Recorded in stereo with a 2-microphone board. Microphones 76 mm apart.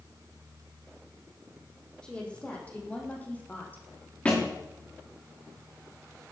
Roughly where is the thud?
Centre.